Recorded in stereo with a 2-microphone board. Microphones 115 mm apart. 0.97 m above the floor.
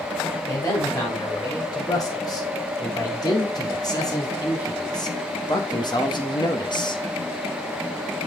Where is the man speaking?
30° left (ahead or behind), 5 m; by 7.0 s 40° left (ahead or behind), 1.3 m.